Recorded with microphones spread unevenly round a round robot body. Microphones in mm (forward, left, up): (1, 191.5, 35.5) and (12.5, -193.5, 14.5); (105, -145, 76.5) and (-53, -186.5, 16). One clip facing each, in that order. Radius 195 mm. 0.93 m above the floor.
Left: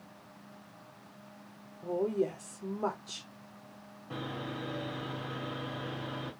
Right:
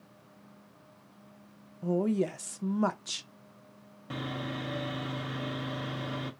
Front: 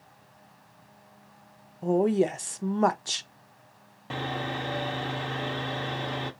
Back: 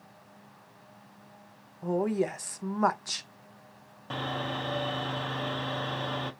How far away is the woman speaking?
About 0.7 m.